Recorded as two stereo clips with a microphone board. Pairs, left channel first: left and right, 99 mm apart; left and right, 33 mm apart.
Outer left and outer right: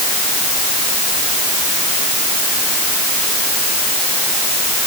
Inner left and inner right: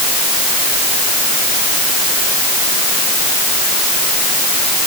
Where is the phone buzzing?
No phone buzzing in this recording.